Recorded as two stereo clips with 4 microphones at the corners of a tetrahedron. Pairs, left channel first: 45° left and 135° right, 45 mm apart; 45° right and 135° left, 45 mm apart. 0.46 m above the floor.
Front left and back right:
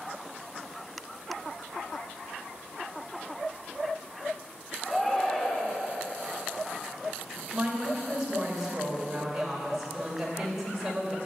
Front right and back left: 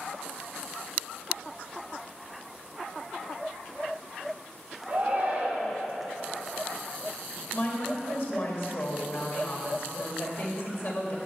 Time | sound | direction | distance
4.9 | a shout | 115° left | 1.4 m
7.5 | a woman speaking | 65° right | 1.9 m